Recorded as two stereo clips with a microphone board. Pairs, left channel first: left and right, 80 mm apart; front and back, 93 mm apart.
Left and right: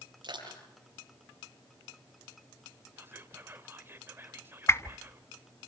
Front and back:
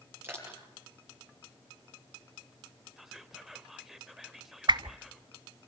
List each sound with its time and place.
0.2 s crushing: 115° right, 9.5 m
3.0 s whispering: 95° right, 1.2 m
4.7 s a whoosh: 145° left, 0.8 m